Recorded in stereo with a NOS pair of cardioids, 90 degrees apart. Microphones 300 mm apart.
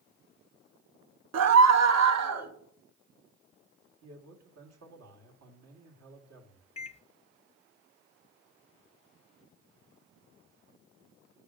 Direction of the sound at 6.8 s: 20° left.